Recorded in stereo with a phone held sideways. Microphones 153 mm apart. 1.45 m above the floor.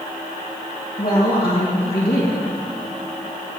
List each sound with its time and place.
1.0 s a woman speaking: 35° left (ahead or behind), 1.9 m